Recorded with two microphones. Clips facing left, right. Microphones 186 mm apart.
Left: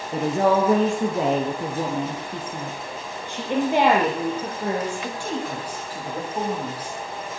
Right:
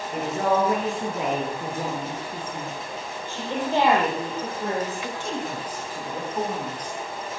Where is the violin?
I don't hear a violin.